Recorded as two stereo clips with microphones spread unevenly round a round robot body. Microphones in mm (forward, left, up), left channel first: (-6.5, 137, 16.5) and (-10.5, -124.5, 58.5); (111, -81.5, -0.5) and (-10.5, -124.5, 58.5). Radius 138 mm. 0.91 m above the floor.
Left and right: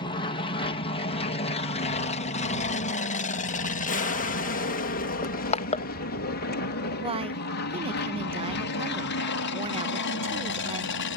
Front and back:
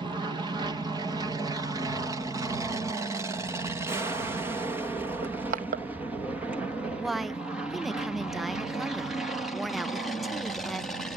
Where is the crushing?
150° left.